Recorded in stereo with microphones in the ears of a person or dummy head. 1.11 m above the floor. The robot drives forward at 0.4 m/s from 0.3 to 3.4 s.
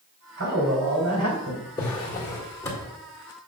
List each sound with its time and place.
0.4 s a man speaking: 70° right (ahead or behind), 3 m; by 1.7 s 60° right (ahead or behind), 3 m
1.8 s a drawer: 15° left (ahead or behind), 1.6 m